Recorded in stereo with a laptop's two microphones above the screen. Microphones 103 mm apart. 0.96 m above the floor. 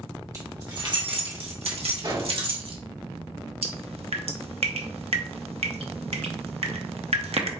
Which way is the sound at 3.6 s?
80° right.